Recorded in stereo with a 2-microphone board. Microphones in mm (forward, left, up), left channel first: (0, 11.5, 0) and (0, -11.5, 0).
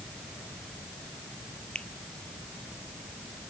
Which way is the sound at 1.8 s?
50° left (ahead or behind).